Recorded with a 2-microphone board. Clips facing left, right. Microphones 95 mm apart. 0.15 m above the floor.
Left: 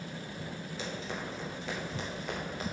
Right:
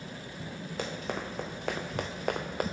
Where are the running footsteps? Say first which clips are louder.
Right 4 dB; 60° right (ahead or behind), 2 m; by 2.6 s 65° right (ahead or behind), 1.1 m.